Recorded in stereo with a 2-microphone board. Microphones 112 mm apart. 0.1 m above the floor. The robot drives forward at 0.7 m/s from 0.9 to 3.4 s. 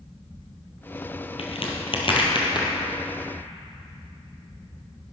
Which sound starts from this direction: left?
A crack, at 1.4 s.